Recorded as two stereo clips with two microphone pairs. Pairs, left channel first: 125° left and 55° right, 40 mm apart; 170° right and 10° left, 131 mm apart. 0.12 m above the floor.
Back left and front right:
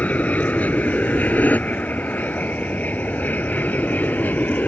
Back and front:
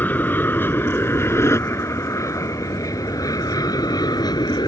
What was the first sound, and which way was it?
An aircraft, 125° left.